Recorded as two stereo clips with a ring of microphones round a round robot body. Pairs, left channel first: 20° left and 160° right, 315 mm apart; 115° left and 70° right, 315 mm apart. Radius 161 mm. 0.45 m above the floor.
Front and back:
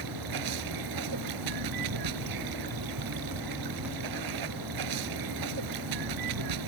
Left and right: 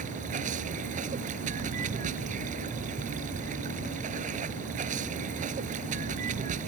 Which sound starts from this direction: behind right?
Running water, at 0.0 s.